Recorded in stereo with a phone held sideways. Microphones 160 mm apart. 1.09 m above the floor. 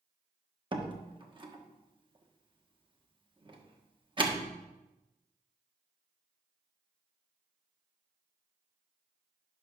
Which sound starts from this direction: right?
A door slam, at 0.7 s.